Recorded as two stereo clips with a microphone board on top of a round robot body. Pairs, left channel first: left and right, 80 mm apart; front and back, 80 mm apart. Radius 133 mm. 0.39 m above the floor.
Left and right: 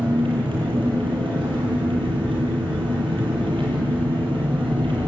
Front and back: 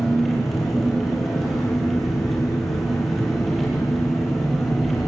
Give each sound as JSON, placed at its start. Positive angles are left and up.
{"t": 0.0, "sound": "an engine running", "azimuth_deg": -90, "distance_m": 7.0}